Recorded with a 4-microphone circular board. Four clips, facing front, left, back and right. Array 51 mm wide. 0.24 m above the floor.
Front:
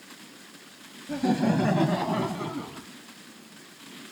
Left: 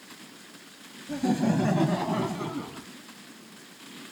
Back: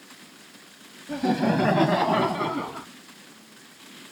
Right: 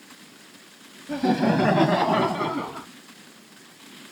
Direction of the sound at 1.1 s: 105° right.